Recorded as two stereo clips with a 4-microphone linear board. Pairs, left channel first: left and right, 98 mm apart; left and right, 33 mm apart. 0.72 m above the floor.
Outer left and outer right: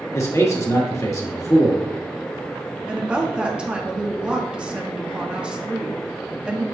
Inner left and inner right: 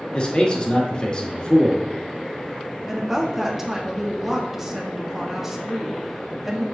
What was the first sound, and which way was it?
A man speaking, 30° left (ahead or behind).